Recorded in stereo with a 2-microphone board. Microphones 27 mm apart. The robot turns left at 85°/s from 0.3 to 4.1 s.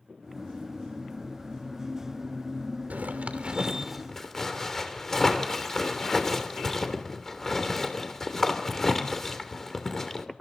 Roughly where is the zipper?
Right.